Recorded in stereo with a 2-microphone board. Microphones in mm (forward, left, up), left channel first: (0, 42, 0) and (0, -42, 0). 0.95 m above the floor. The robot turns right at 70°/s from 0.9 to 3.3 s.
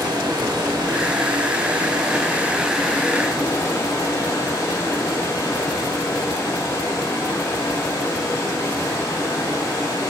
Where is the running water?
130° right, 1.4 m; by 10.1 s 40° left, 1.4 m.